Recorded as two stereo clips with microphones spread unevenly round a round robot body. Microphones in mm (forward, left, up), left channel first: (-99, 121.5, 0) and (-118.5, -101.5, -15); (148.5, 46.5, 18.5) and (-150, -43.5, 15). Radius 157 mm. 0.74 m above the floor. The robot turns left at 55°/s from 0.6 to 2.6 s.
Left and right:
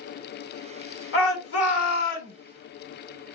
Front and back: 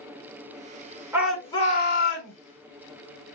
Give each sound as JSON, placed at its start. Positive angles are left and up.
{"t": 1.1, "sound": "a shout", "azimuth_deg": 115, "distance_m": 2.5}